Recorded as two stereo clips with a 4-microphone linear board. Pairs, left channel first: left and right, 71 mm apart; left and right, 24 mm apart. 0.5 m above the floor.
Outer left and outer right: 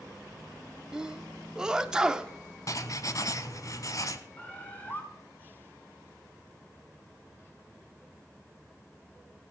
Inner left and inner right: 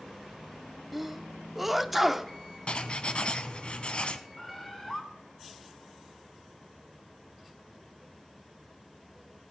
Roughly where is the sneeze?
Centre.